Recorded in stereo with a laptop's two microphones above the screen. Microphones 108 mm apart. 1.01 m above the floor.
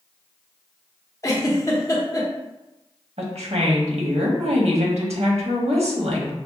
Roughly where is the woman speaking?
Right.